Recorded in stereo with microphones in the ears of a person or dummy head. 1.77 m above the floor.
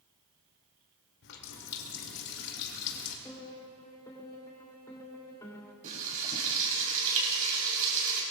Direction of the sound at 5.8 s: 45° right (ahead or behind).